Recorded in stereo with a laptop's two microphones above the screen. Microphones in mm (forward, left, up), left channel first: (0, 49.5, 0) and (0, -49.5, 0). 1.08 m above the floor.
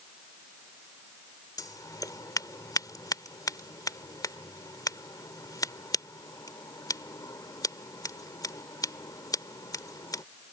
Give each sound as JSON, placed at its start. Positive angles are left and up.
{"t": 1.6, "sound": "scissors", "side_deg": 40}